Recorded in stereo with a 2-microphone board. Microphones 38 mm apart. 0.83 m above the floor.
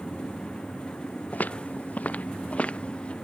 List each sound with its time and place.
1.3 s footsteps: 45° left (ahead or behind); by 3.1 s 25° left (ahead or behind)